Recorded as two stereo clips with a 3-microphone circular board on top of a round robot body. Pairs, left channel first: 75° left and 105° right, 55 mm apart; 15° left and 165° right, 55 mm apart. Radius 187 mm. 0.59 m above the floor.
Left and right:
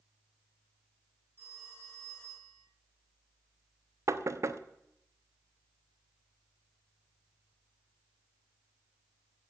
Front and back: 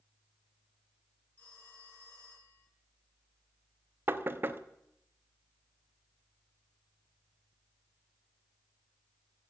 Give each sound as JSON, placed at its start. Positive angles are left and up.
{"t": 1.4, "sound": "a phone ringing", "azimuth_deg": -50, "distance_m": 6.0}
{"t": 4.1, "sound": "knocking", "azimuth_deg": -120, "distance_m": 1.0}